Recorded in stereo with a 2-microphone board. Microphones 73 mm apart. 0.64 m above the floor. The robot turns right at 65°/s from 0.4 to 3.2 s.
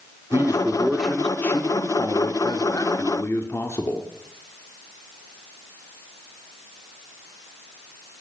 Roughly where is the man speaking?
Ahead right.